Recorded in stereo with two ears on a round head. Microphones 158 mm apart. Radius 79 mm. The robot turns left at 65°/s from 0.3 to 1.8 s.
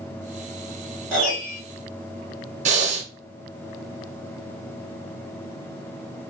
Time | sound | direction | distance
1.1 | a piano | 170° right | 2 m
2.6 | breathing | 40° right (ahead or behind) | 0.8 m